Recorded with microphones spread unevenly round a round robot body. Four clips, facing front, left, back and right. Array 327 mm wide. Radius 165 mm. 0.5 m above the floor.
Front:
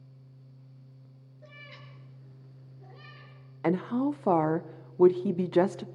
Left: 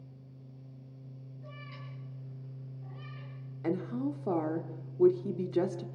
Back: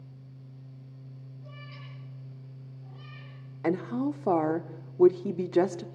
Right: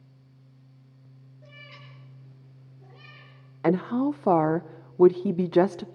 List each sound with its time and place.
1.4 s a cat meowing: 35° right, 5 m; by 3.3 s 40° right, 6 m
3.6 s a woman speaking: 115° right, 0.8 m